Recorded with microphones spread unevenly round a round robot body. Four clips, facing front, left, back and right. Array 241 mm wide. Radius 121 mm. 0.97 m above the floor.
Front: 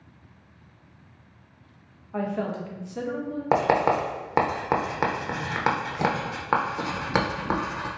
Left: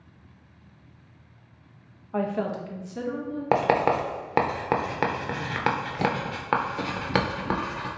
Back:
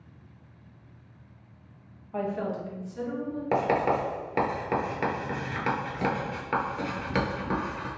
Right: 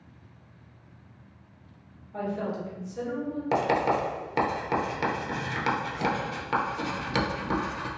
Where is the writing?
55° left, 0.7 m.